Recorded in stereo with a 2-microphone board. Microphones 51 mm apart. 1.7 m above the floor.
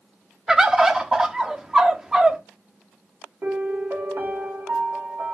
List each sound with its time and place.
0.5 s a bird: 10° right (ahead or behind), 0.5 m
3.4 s a piano: 55° right (ahead or behind), 1.0 m